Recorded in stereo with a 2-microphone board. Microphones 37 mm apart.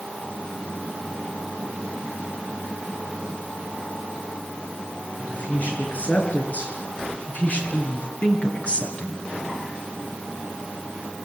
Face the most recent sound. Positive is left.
turn(degrees=25)  # may be behind; listen again after turning